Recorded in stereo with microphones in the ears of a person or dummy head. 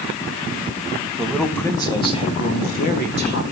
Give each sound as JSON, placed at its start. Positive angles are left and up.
{"t": 1.2, "sound": "a man speaking", "side_deg": 0, "distance_m": 1.6}